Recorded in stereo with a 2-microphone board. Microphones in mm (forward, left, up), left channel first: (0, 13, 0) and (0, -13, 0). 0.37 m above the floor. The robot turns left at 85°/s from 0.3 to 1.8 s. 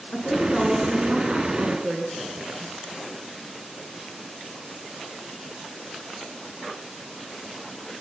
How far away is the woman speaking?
About 5 m.